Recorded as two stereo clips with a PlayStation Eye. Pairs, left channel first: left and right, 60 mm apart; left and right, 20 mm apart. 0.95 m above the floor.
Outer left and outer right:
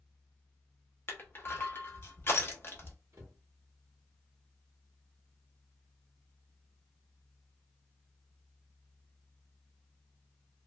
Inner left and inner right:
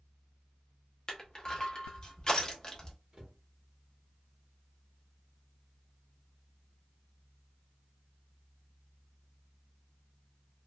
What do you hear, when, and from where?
1.1 s crushing: 40° left (ahead or behind), 0.8 m
3.1 s a cupboard door: 65° right (ahead or behind), 1.3 m